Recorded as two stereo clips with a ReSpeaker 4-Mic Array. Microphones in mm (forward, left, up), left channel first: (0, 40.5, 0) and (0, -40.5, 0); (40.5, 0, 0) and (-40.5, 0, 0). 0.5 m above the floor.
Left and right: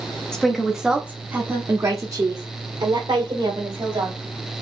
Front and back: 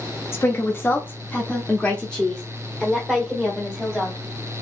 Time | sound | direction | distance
0.3 | a woman speaking | 15° left | 0.9 m